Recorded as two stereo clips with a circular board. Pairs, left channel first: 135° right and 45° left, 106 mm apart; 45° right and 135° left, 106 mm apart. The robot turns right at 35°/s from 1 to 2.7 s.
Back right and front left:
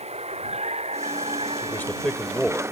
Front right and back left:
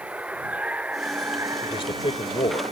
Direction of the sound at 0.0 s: 55° left.